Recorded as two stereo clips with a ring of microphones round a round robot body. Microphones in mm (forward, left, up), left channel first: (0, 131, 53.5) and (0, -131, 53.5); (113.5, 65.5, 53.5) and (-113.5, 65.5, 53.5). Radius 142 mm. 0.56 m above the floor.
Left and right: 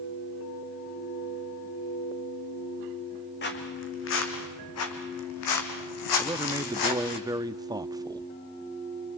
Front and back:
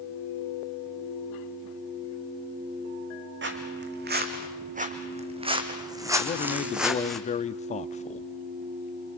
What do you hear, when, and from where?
3.4 s footsteps: 140° left, 3 m; by 7.2 s 90° left, 3 m
6.2 s a man speaking: 25° right, 0.7 m